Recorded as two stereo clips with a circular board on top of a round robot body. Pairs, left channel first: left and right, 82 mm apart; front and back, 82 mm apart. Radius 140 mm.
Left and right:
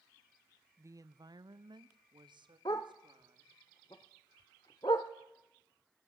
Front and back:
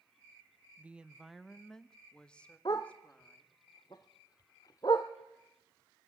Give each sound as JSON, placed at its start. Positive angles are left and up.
{"t": 0.8, "sound": "a woman speaking", "azimuth_deg": -125, "distance_m": 0.8}
{"t": 2.6, "sound": "a dog barking", "azimuth_deg": 45, "distance_m": 0.5}